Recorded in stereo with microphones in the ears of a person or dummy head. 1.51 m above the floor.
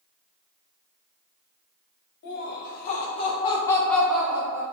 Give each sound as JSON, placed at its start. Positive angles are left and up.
{"t": 2.2, "sound": "laughter", "side_deg": 60, "distance_m": 1.1}